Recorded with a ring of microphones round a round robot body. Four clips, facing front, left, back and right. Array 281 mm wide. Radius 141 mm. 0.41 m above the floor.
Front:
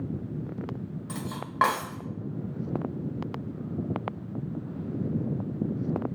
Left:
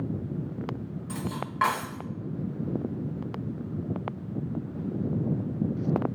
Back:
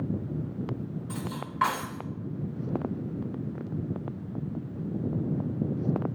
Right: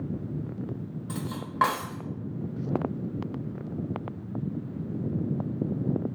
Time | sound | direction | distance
1.1 | cutlery clinking | 25° right | 1.0 m